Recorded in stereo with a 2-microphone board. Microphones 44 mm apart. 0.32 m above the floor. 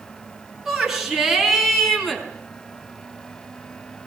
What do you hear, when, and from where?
0.7 s a shout: 10° right (ahead or behind), 4.5 m; by 2.2 s 5° left (ahead or behind), 3 m